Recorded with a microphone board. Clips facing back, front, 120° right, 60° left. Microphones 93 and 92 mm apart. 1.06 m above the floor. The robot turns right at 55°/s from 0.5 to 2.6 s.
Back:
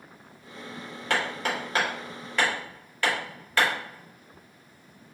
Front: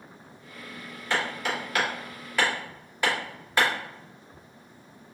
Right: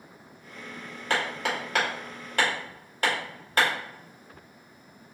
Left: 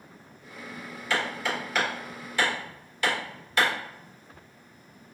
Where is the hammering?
160° right, 2.0 m; by 3.7 s 75° right, 2.0 m.